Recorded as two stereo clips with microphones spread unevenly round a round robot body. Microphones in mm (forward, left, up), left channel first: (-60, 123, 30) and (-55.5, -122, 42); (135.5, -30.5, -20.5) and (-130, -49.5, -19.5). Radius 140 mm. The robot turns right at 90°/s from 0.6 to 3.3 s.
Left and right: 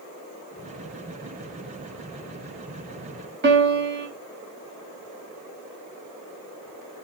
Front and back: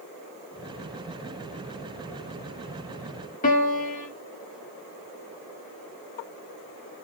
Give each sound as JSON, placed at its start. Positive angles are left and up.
{"t": 3.4, "sound": "a piano", "azimuth_deg": -50, "distance_m": 1.4}